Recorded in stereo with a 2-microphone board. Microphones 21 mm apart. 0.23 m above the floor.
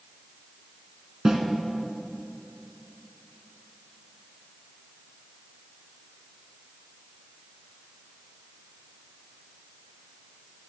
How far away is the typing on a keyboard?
No typing on a keyboard in this recording.